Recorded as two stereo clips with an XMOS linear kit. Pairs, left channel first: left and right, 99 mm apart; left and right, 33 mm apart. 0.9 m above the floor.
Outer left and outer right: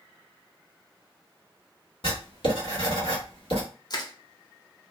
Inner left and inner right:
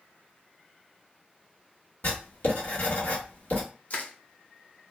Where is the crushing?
45° left (ahead or behind), 0.5 m.